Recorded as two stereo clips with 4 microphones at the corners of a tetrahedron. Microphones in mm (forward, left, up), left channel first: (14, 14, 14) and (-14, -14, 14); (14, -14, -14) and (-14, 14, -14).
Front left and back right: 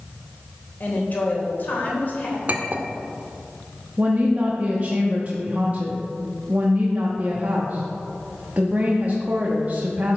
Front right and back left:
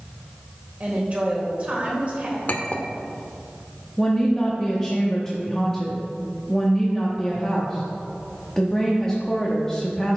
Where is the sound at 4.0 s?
110° right, 0.9 m.